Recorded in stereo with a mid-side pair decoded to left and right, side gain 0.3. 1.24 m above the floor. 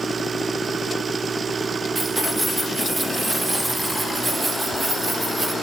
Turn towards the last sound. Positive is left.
turn(degrees=-35)